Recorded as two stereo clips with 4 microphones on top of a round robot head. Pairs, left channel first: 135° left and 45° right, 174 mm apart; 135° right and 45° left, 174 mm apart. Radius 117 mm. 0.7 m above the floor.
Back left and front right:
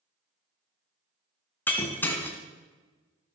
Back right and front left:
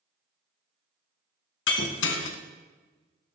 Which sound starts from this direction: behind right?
Breaking glass, at 1.7 s.